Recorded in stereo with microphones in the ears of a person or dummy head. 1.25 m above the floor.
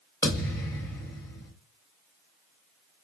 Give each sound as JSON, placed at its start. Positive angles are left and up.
{"t": 0.2, "sound": "a thud", "side_deg": 20, "distance_m": 1.3}